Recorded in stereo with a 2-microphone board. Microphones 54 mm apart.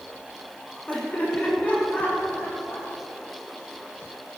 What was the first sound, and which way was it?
Laughter, 25° left (ahead or behind).